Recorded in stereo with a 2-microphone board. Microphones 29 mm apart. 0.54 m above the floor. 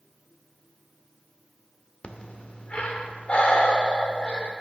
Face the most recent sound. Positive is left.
turn(degrees=40)  # may be behind; listen again after turning